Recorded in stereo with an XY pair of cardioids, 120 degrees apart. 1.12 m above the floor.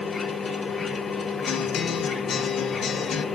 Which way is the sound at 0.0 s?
30° left.